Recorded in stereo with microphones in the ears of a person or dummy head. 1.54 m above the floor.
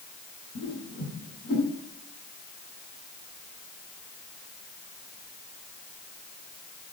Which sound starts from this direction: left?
A whoosh, at 0.6 s.